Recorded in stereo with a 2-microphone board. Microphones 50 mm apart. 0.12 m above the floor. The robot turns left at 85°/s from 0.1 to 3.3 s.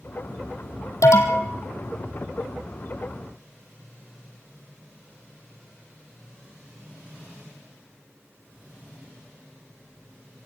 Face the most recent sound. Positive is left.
turn(degrees=-110)